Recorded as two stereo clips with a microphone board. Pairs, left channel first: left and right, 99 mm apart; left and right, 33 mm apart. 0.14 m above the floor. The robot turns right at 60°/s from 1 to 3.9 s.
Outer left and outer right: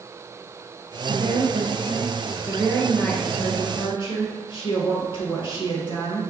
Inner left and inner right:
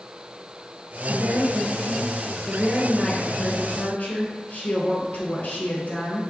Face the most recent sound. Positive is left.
turn(degrees=65)